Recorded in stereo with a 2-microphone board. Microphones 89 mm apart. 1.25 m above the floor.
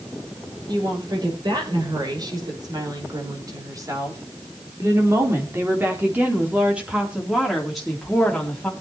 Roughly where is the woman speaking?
Right.